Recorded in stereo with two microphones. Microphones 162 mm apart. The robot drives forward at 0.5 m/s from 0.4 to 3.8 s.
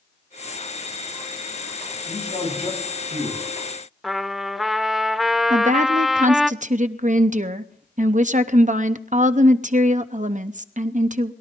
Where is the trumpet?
Centre (ahead or behind), 0.5 m.